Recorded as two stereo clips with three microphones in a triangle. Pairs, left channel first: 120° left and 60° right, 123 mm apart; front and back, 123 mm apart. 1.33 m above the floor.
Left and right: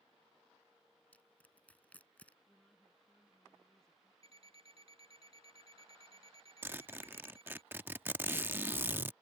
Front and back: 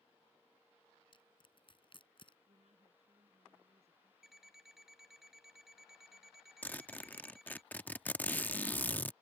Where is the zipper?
40° right.